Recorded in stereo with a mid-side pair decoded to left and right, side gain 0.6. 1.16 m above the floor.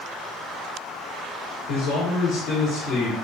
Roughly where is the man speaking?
Ahead left.